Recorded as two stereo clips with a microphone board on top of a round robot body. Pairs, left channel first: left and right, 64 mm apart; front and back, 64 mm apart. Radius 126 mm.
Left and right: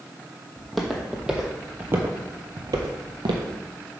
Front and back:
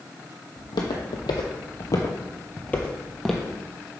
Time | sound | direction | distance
0.6 | footsteps | straight ahead | 1.3 m